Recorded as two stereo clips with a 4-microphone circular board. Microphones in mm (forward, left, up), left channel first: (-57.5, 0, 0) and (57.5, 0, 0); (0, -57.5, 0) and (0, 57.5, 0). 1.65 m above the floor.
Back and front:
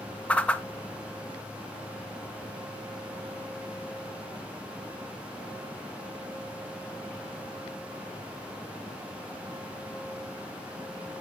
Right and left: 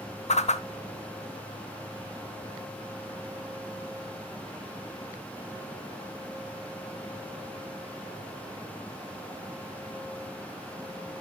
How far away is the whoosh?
About 0.5 m.